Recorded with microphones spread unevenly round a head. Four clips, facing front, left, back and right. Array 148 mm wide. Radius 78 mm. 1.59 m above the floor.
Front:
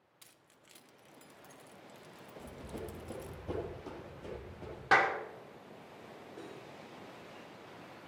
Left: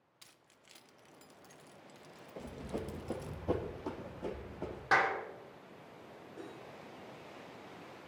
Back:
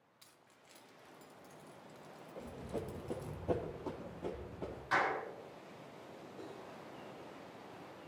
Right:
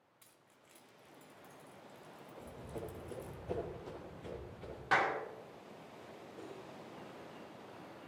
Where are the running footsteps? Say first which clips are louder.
Left 5 dB, back 2 dB; 90° left, 2.5 m; by 4.8 s 115° left, 5 m.